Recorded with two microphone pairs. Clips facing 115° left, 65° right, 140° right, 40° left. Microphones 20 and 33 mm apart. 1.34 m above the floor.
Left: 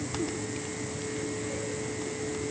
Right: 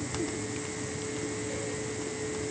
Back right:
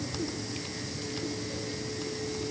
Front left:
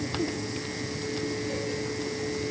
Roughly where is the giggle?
I don't hear a giggle.